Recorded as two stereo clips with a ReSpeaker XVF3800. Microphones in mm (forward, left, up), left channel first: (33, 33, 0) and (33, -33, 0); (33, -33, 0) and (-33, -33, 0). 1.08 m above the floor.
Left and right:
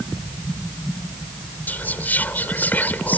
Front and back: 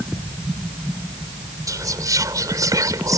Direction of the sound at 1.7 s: 155° left.